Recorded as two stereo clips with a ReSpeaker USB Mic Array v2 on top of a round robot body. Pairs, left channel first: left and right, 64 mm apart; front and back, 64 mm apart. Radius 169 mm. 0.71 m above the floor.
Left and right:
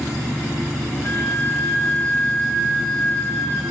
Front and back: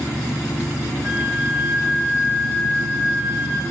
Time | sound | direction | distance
1.0 | a flute | 130° left | 3 m